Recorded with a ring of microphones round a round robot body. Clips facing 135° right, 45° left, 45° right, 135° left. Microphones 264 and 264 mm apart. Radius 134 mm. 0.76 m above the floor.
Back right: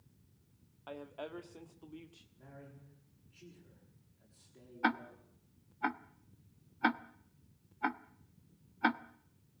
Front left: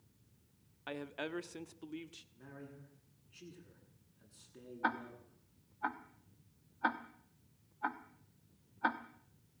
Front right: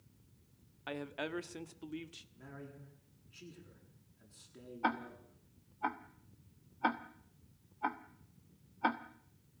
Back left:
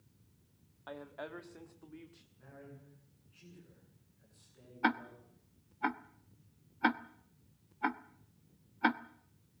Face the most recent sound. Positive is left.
turn(degrees=-175)